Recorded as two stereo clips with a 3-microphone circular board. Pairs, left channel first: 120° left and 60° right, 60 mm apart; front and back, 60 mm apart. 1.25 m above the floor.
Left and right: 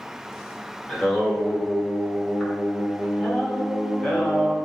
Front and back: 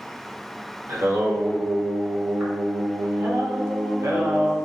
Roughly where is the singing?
Behind.